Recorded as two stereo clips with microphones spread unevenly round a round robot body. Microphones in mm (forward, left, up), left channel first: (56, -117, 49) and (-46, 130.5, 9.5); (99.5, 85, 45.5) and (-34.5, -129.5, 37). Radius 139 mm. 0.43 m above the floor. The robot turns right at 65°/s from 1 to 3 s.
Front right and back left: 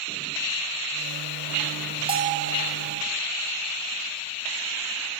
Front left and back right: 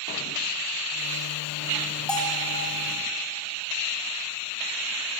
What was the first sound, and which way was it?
A bell, 145° left.